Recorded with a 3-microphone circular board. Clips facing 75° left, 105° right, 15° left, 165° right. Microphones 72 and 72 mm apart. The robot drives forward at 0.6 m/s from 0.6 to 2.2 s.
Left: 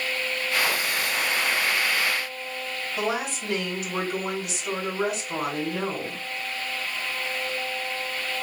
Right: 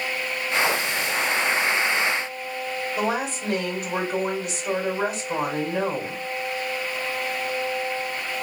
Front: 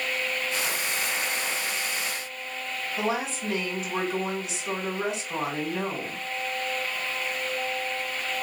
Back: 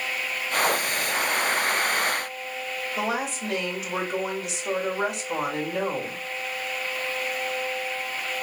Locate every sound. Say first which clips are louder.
3.0 s a woman speaking: right 1 dB, even; 155° right, 4 m